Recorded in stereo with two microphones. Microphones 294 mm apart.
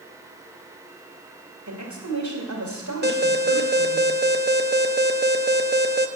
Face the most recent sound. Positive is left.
turn(degrees=-35)  # may be behind; listen again after turning